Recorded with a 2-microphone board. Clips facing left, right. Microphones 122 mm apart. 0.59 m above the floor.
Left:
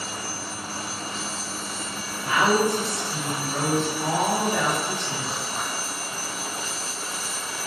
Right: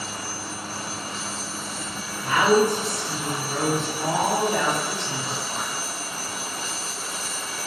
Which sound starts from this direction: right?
A woman speaking, at 2.2 s.